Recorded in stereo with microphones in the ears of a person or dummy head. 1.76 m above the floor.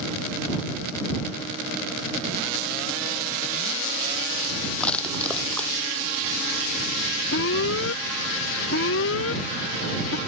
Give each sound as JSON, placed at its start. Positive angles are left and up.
{"t": 4.8, "sound": "crushing", "side_deg": 0}
{"t": 7.3, "sound": "an alarm", "side_deg": 65}